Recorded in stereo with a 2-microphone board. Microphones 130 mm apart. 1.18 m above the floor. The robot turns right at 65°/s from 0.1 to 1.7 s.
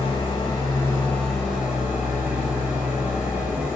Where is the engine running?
95° left, 1.1 m; by 3.8 s 160° right, 1.1 m.